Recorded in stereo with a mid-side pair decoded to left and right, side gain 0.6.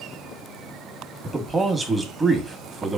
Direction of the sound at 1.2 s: 15° right.